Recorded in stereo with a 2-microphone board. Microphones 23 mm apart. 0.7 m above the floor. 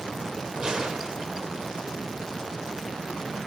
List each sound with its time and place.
0.6 s a gunshot: 30° right (ahead or behind), 1.8 m